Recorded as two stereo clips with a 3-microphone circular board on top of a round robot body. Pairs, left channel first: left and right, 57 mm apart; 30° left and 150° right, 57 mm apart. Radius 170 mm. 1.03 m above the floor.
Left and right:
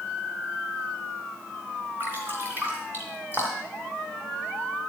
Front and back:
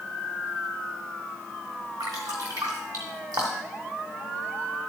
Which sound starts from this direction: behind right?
Dripping, at 2.0 s.